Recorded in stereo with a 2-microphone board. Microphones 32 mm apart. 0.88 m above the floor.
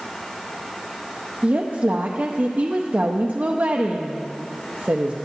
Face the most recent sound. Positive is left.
turn(degrees=-55)  # may be behind; listen again after turning